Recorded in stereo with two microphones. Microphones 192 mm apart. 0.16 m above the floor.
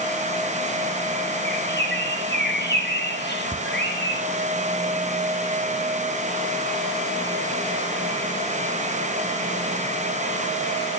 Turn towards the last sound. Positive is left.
turn(degrees=-5)  # may be behind; listen again after turning